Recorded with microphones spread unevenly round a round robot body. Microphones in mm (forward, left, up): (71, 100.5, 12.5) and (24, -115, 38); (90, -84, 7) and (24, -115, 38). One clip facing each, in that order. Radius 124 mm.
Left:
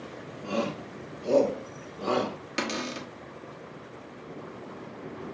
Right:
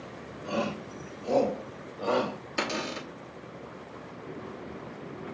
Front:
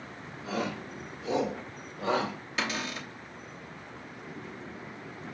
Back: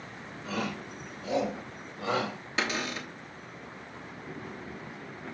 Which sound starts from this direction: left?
A shout, at 0.4 s.